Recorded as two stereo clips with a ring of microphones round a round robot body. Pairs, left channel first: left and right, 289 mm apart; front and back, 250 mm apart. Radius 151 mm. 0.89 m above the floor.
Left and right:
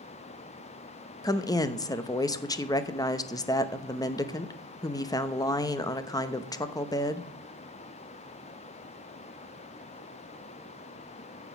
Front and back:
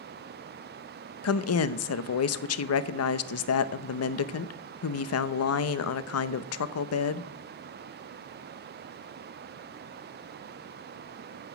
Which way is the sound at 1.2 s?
15° left.